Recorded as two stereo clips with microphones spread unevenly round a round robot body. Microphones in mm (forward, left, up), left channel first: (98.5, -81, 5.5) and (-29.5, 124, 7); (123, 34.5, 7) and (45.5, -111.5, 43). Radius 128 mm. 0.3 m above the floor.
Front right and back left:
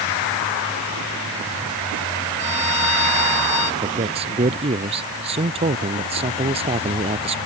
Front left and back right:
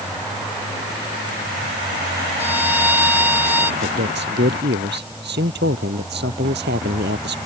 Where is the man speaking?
170° right.